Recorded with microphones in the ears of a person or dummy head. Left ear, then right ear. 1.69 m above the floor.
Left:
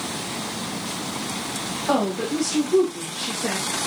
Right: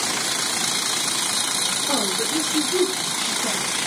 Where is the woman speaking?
10° left (ahead or behind), 4 m; by 3.9 s 25° left (ahead or behind), 3 m.